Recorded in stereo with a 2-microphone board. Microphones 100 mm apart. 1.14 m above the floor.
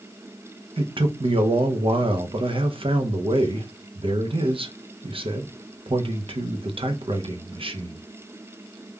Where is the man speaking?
60° right (ahead or behind), 0.6 m.